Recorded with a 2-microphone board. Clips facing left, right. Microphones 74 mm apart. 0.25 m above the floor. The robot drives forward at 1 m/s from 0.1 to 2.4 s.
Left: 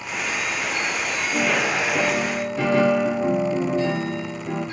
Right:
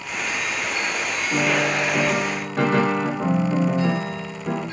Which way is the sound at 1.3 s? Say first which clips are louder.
Right 1 dB; 60° right (ahead or behind).